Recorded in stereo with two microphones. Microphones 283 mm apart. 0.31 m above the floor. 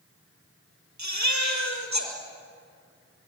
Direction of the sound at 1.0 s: 75° right (ahead or behind).